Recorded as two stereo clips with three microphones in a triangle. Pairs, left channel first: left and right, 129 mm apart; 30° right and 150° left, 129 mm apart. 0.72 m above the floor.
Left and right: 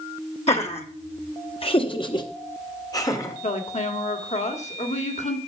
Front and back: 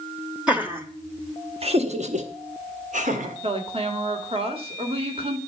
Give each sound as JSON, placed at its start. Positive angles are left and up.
{"t": 0.5, "sound": "laughter", "azimuth_deg": 70, "distance_m": 1.0}
{"t": 3.4, "sound": "a woman speaking", "azimuth_deg": 110, "distance_m": 2.0}